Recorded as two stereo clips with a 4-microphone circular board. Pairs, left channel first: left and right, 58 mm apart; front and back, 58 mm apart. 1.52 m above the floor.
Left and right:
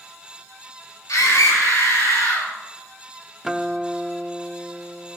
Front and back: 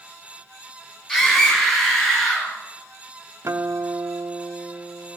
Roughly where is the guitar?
Behind.